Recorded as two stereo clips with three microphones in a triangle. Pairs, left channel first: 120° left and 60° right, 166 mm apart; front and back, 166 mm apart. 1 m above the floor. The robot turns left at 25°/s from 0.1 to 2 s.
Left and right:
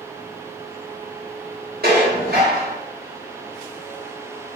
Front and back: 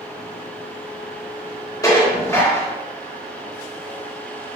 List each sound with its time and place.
1.8 s dishes clattering: 70° right, 3 m; by 2.8 s 75° right, 3 m